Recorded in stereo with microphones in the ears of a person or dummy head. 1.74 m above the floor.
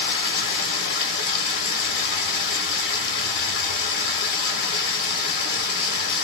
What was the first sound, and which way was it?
Running water, 70° left (ahead or behind).